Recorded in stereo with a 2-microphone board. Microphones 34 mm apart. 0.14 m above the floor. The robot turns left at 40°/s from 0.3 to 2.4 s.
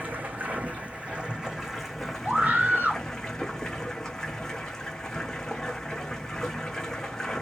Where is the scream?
50° right (ahead or behind), 1.8 m.